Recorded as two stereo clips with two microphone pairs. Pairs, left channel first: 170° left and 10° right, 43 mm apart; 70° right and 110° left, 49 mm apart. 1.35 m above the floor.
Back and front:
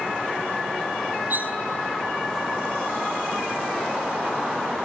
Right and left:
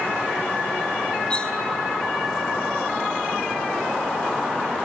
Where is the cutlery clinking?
5° right, 0.9 m.